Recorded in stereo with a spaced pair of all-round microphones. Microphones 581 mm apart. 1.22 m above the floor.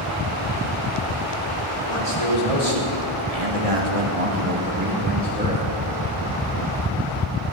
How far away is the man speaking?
About 4 m.